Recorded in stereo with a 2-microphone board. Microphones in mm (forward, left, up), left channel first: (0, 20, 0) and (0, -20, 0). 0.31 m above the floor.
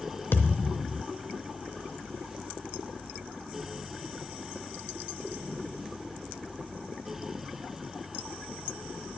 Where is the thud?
60° left (ahead or behind), 0.5 m.